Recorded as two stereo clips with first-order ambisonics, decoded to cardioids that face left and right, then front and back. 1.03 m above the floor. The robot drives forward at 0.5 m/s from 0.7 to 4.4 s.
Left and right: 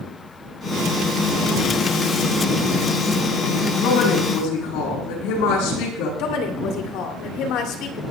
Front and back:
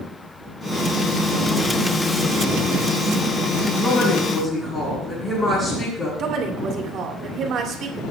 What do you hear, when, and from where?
3.8 s a woman speaking: 75° left, 9 m
6.2 s a woman speaking: 125° left, 2.5 m